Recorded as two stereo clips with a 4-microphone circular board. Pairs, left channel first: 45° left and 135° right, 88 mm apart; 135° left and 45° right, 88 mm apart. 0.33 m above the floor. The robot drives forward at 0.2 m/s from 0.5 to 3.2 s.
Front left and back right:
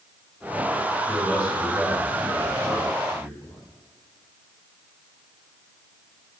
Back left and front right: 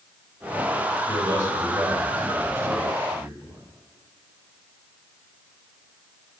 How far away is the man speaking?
About 1.6 m.